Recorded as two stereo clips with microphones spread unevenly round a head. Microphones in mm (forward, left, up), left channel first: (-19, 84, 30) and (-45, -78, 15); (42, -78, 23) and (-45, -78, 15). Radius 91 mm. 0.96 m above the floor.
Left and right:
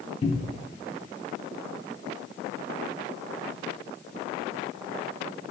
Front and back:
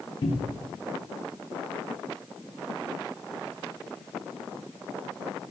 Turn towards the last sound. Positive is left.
turn(degrees=30)